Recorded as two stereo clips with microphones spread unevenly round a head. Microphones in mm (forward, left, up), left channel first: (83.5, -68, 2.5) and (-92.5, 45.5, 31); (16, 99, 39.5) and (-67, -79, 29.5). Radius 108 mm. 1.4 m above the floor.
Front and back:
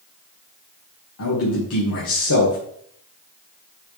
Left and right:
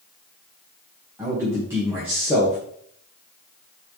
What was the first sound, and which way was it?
A man speaking, 35° right.